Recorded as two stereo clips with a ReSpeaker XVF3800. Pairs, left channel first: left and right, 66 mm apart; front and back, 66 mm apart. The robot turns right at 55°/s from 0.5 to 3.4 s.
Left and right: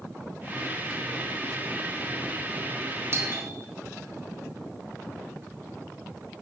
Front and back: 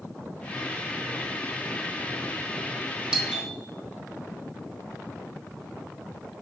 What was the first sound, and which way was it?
A doorbell, 105° right.